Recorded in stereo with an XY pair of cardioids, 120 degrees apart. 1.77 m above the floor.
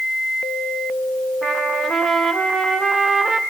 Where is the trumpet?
35° right, 1.6 m.